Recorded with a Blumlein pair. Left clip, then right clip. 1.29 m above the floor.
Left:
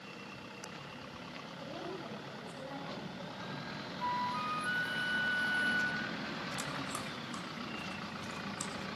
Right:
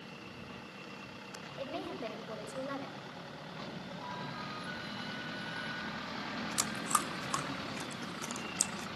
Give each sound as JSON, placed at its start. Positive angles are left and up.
{"t": 1.6, "sound": "a woman speaking", "azimuth_deg": -60, "distance_m": 6.5}
{"t": 4.0, "sound": "a flute", "azimuth_deg": 30, "distance_m": 0.8}
{"t": 6.6, "sound": "chewing", "azimuth_deg": -60, "distance_m": 1.1}